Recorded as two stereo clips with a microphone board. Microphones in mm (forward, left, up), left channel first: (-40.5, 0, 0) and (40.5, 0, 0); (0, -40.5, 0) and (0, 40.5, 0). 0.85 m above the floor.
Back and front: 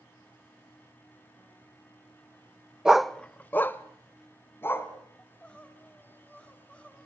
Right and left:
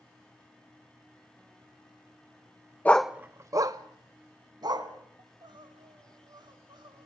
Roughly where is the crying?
Left.